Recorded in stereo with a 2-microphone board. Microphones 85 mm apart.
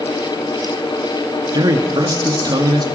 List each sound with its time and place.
1.5 s a man speaking: 50° right (ahead or behind), 1.1 m